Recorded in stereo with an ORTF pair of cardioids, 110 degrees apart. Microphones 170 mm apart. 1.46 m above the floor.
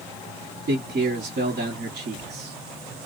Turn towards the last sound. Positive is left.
turn(degrees=-50)